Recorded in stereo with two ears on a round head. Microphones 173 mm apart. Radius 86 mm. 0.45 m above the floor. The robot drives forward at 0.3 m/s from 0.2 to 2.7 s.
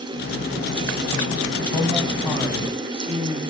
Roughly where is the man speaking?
Centre.